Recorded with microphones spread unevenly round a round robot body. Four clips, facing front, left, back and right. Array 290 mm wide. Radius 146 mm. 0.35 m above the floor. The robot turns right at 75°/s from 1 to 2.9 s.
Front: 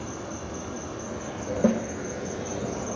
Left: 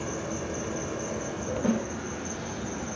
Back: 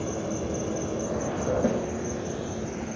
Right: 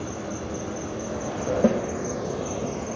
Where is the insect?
175° left, 1.2 m; by 3.0 s 40° right, 1.2 m.